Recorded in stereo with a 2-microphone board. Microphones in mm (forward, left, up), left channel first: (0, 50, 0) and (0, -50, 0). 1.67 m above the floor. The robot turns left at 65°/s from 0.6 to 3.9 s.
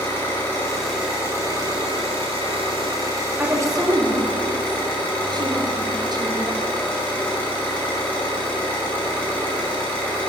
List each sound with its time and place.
0.0 s an engine running: 20° left, 2.5 m; by 10.3 s 165° left, 2.5 m
3.4 s a woman speaking: 20° right, 1.0 m; by 6.7 s 55° right, 1.0 m